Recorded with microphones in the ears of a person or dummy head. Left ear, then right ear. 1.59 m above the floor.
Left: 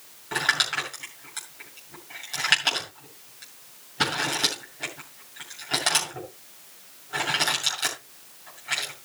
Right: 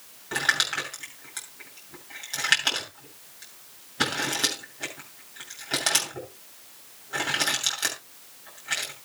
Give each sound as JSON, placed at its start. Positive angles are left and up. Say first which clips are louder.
{"t": 0.3, "sound": "crumpling", "louder": "left 1 dB", "side_deg": 0, "distance_m": 7.5}